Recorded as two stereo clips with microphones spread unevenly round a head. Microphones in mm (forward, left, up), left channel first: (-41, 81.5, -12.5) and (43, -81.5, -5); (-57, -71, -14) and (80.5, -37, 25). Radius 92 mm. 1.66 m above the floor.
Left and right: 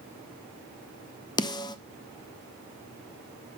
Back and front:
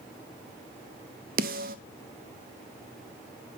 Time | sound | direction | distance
1.4 | a snare drum | 50° left | 0.5 m